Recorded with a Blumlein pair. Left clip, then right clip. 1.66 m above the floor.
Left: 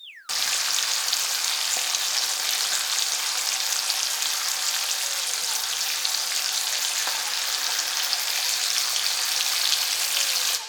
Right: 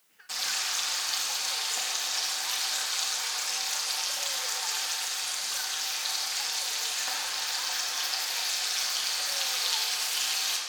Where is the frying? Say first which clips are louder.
Left 6 dB; 55° left, 1.2 m.